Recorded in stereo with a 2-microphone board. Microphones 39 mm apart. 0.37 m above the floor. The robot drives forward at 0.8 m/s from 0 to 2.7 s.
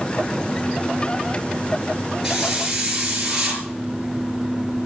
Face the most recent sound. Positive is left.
turn(degrees=-10)  # may be behind; listen again after turning